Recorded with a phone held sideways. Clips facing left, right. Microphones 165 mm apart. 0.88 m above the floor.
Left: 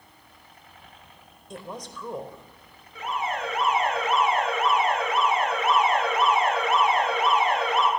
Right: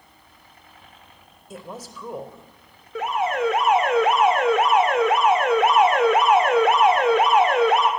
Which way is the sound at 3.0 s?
75° right (ahead or behind).